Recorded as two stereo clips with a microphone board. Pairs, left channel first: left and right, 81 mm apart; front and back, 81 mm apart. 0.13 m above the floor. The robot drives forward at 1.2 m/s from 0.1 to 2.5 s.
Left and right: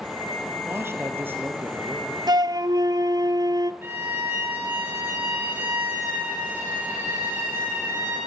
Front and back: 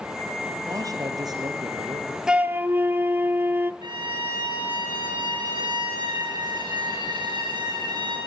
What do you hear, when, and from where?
0.7 s a man speaking: 145° right, 3 m; by 2.2 s 160° right, 4.5 m
2.3 s a flute: 100° right, 0.8 m; by 3.7 s 120° right, 0.9 m
3.8 s a violin: 150° right, 9 m